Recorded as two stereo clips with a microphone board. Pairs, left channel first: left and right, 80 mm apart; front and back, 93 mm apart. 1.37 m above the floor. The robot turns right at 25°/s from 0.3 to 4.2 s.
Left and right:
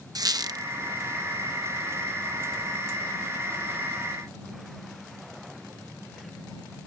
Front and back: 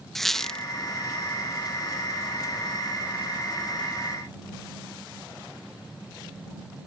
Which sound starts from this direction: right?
A squeak, at 0.1 s.